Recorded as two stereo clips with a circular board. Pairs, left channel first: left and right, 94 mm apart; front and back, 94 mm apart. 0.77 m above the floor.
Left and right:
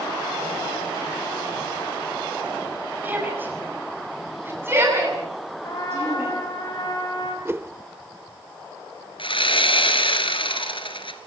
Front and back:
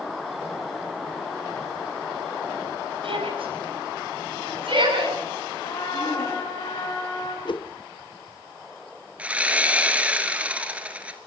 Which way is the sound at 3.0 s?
160° right.